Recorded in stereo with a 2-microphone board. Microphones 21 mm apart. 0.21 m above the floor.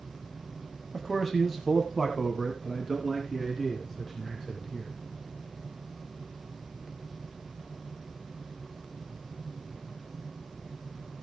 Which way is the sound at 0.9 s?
15° left (ahead or behind).